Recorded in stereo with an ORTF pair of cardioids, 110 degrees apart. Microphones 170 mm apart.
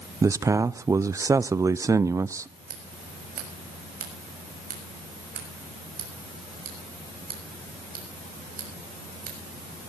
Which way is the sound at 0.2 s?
20° right.